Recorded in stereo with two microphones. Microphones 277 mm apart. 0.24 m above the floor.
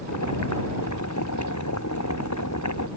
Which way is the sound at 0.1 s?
85° left.